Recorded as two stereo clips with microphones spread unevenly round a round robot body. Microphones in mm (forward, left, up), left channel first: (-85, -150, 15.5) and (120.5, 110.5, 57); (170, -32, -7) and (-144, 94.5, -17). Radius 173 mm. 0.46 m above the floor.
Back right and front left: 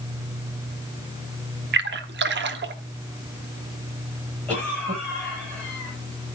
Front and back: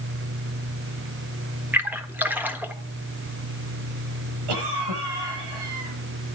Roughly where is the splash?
Left.